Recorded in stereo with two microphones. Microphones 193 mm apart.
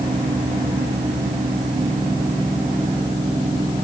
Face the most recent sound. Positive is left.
No sound to turn to.